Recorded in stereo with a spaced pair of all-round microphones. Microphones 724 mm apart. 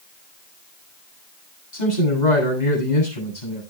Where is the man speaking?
75° left (ahead or behind), 8 m.